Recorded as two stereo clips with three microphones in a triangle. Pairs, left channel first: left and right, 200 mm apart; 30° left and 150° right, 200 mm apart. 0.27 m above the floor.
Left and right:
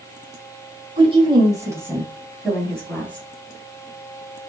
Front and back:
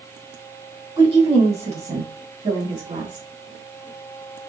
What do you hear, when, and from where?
1.0 s a woman speaking: 115° right, 1.6 m; by 3.3 s 170° left, 2.5 m